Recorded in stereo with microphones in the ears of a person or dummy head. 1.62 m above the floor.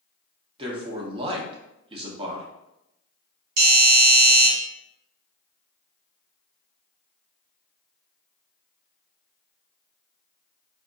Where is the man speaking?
30° right (ahead or behind), 0.8 m.